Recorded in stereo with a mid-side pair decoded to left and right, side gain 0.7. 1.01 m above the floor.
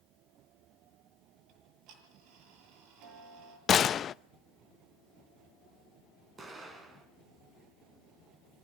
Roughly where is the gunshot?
Ahead left.